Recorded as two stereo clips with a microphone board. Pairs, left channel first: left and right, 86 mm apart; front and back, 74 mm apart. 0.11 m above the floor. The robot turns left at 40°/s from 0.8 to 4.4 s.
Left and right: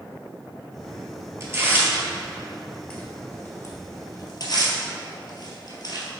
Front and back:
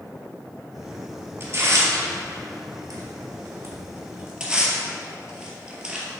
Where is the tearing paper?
135° right, 1.7 m; by 6.0 s 105° left, 1.7 m.